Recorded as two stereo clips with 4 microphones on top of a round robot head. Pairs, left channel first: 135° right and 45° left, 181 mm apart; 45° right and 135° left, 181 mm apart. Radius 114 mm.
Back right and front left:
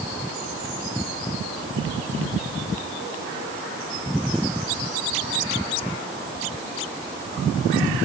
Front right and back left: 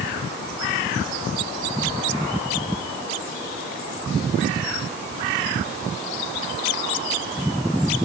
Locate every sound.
Only background noise.